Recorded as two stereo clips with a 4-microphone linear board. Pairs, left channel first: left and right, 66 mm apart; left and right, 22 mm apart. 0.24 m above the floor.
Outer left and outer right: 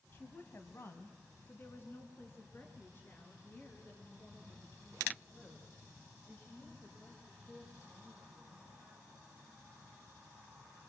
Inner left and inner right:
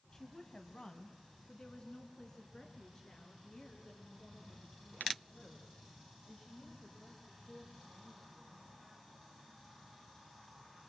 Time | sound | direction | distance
0.1 | a woman speaking | 35° left (ahead or behind) | 1.2 m